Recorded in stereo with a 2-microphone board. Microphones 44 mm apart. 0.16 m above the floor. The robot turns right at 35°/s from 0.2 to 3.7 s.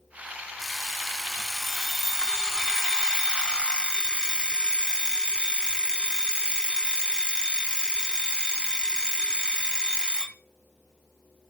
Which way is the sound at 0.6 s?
10° right (ahead or behind).